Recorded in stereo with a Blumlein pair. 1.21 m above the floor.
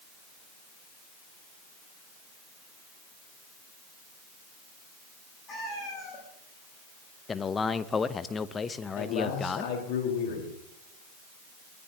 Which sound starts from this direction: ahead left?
A man speaking, at 9.0 s.